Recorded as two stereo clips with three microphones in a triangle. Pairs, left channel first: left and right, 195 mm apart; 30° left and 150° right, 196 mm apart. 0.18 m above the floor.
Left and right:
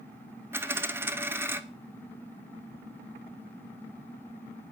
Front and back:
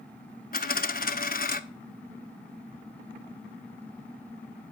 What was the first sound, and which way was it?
A dropped coin, 15° right.